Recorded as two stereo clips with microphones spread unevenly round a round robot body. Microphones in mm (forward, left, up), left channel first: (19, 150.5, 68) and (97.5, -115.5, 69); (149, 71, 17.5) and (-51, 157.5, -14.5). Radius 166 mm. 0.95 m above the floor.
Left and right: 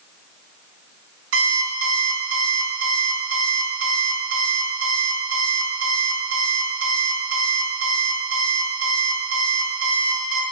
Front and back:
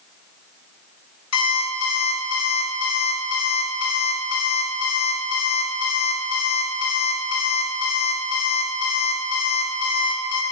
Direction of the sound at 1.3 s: 30° right.